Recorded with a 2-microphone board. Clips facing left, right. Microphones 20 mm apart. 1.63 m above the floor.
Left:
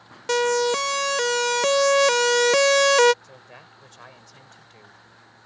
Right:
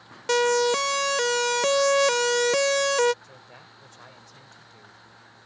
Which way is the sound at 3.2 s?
20° left (ahead or behind).